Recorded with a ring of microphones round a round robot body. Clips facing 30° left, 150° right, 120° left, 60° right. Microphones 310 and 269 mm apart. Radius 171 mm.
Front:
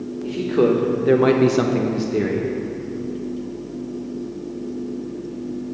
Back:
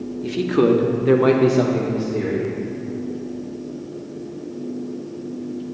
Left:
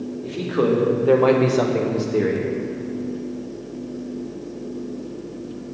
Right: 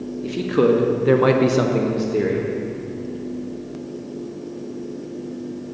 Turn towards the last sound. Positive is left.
turn(degrees=35)